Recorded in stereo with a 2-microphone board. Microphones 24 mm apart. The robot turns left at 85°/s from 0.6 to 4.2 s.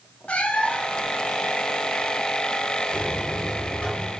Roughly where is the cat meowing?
Left.